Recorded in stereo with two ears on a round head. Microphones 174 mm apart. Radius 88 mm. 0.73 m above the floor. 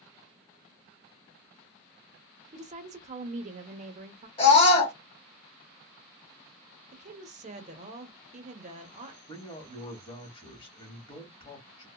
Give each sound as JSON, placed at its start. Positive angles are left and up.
{"t": 2.5, "sound": "a woman speaking", "side_deg": -35, "distance_m": 0.6}
{"t": 4.4, "sound": "a scream", "side_deg": 30, "distance_m": 1.7}
{"t": 6.9, "sound": "a woman speaking", "side_deg": -35, "distance_m": 0.7}
{"t": 9.3, "sound": "a man speaking", "side_deg": 25, "distance_m": 1.2}